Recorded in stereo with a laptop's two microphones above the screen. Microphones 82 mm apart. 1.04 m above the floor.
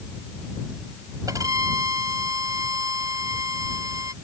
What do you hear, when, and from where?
1.3 s a violin: 45° right (ahead or behind)